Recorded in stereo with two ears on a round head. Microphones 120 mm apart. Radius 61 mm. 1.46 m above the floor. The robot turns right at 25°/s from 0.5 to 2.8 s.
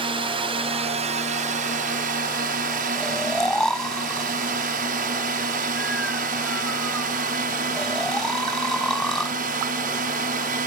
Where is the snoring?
5° left (ahead or behind).